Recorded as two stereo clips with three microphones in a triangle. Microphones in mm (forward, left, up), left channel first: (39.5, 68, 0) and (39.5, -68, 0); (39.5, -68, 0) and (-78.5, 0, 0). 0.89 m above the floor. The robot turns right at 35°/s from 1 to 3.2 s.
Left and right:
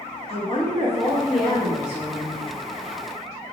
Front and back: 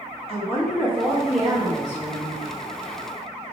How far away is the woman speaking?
About 1.5 m.